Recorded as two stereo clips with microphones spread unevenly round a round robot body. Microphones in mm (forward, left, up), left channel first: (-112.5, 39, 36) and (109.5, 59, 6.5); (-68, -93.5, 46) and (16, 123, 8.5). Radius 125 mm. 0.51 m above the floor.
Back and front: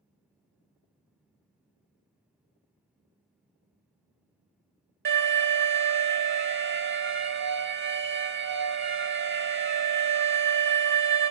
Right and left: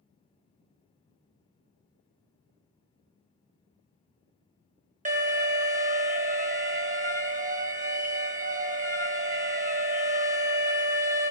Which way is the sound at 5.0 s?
25° left.